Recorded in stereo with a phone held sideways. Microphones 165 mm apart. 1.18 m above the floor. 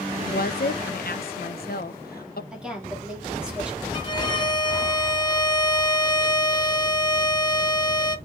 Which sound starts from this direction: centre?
A woman speaking, at 2.5 s.